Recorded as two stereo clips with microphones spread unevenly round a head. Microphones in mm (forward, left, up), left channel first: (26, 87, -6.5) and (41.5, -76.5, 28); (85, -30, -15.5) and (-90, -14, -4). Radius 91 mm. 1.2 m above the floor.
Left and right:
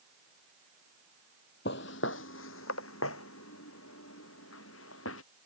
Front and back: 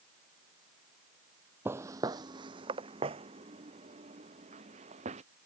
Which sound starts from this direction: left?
Footsteps, at 1.6 s.